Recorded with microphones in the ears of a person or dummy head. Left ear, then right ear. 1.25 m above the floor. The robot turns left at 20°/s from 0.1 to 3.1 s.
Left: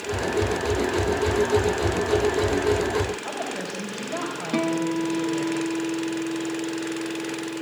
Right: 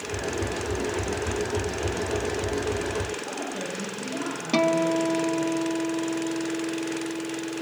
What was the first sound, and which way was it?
A woman speaking, 60° left (ahead or behind).